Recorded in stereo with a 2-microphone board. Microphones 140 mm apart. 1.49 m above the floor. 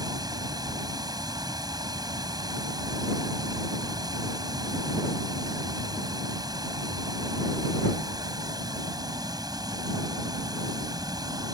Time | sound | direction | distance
0.0 | running water | 30° right (ahead or behind) | ?